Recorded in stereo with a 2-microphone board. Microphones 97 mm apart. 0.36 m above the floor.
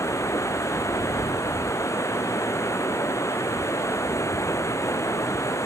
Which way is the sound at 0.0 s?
30° left (ahead or behind).